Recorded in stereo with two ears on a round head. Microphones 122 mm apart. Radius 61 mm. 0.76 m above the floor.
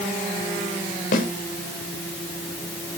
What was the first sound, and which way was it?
A snare drum, 70° left (ahead or behind).